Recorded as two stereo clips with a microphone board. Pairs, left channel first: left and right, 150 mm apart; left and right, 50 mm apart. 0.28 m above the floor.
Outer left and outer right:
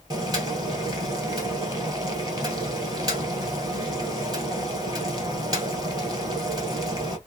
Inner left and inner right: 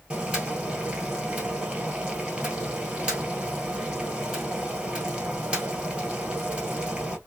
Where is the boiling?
25° right (ahead or behind), 1.4 m.